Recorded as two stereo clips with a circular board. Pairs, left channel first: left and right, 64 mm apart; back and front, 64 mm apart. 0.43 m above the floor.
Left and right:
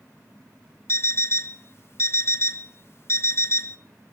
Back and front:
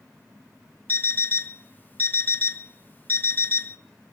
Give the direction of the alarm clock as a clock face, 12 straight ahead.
8 o'clock.